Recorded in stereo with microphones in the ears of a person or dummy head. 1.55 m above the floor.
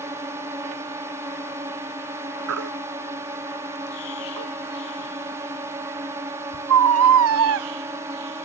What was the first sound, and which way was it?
A drone, 15° right (ahead or behind).